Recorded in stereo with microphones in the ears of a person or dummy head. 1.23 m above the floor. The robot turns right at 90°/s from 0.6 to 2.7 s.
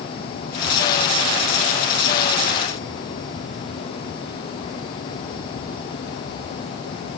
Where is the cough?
I don't hear a cough.